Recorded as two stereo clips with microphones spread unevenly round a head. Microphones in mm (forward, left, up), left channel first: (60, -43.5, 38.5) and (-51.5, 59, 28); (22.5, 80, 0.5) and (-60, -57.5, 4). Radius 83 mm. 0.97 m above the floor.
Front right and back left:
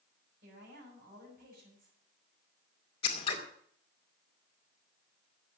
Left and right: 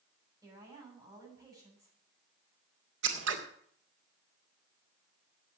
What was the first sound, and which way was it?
A woman speaking, 170° left.